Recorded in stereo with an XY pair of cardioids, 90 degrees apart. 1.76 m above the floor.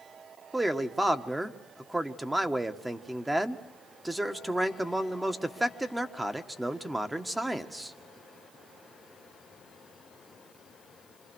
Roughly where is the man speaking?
Ahead.